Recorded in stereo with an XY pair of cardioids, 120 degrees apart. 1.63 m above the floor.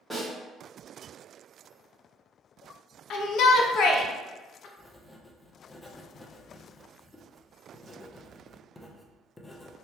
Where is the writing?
15° left, 0.5 m.